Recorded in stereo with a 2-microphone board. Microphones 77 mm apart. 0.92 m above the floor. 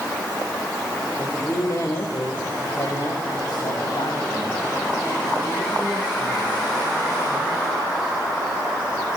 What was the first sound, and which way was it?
A woman speaking, 40° left (ahead or behind).